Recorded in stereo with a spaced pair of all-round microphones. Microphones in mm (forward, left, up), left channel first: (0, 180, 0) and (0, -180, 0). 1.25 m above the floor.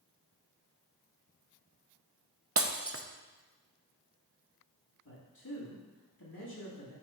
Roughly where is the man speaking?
Left.